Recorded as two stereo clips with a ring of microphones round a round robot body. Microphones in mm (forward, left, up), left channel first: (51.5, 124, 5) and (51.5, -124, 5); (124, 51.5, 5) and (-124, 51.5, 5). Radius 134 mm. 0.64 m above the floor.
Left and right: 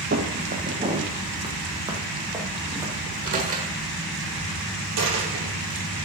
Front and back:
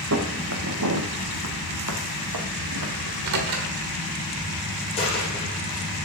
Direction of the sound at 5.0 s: 70° right.